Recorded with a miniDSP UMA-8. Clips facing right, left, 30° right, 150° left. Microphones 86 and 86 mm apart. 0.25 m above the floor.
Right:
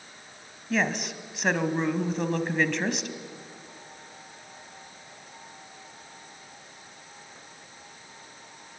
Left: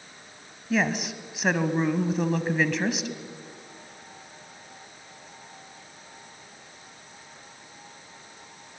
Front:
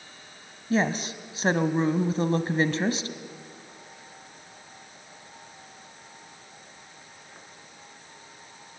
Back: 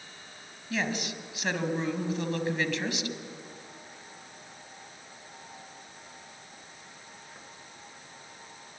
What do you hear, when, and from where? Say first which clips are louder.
0.7 s a woman speaking: left 2 dB, front 6 dB; 5° left, 1.3 m